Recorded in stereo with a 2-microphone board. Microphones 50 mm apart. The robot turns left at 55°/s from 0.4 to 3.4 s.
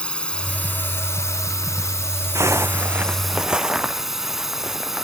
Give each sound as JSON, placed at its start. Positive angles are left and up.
{"t": 0.0, "sound": "a drone", "azimuth_deg": 160}
{"t": 2.4, "sound": "a zipper", "azimuth_deg": -105}